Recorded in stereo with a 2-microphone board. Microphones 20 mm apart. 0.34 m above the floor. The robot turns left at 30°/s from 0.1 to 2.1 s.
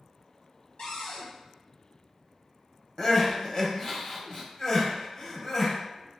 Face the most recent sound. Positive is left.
turn(degrees=35)  # may be behind; listen again after turning